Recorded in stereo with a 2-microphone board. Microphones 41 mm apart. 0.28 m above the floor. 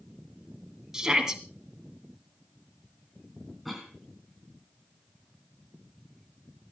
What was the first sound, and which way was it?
A shout, 15° right (ahead or behind).